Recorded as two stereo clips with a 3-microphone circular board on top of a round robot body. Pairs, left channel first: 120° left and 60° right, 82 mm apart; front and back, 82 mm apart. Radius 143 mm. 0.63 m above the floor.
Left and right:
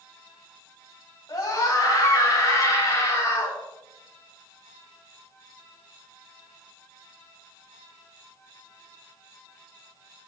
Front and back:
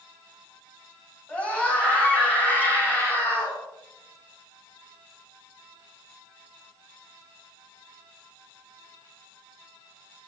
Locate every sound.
1.3 s a scream: 75° left, 6.5 m; by 3.6 s 60° left, 7 m